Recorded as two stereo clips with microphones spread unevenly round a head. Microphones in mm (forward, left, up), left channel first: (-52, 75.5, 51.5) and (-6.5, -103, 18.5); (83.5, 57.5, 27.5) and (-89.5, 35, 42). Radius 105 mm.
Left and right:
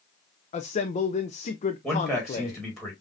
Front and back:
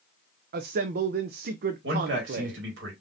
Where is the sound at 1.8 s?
165° right, 2 m.